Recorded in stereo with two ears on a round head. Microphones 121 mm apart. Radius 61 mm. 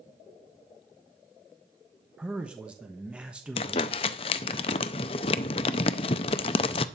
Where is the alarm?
I don't hear an alarm.